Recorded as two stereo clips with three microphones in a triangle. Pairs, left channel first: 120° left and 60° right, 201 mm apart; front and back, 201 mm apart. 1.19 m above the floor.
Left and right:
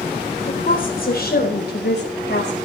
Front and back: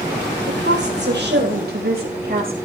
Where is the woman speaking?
165° left, 4 m; by 2.5 s 140° left, 5.5 m.